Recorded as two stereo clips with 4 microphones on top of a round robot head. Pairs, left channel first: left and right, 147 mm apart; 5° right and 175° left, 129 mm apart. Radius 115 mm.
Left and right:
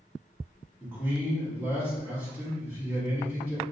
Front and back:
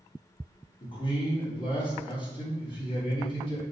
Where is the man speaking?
20° right, 1.2 m.